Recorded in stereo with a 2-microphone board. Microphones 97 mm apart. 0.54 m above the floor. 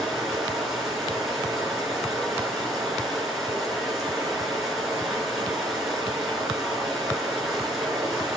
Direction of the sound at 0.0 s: Centre (ahead or behind).